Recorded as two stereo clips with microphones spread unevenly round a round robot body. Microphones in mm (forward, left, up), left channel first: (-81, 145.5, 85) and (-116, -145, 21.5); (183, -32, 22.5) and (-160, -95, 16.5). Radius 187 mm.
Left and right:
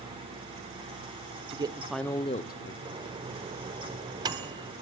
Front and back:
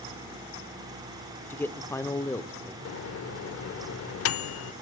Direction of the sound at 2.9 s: 30° right.